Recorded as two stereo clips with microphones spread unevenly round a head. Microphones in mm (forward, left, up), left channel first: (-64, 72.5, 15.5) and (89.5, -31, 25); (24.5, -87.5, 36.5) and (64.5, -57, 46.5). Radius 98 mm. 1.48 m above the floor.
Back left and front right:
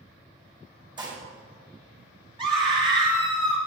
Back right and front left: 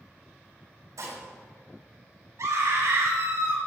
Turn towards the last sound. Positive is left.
turn(degrees=25)